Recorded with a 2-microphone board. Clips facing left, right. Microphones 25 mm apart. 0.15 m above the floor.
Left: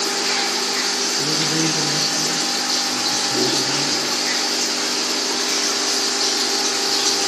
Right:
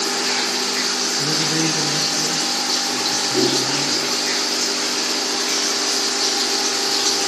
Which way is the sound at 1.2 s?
30° right (ahead or behind).